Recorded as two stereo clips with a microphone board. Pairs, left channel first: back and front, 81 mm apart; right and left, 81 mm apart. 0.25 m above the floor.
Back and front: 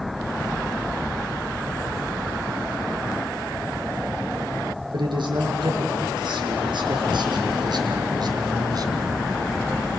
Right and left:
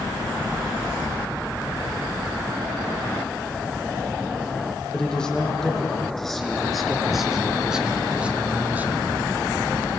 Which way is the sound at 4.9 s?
10° right.